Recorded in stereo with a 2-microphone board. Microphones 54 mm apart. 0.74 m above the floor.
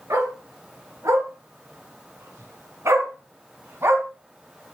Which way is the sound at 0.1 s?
80° right.